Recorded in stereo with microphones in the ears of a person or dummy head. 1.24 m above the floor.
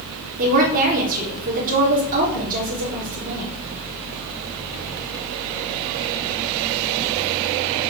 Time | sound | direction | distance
0.4 | a woman speaking | 45° right (ahead or behind) | 4 m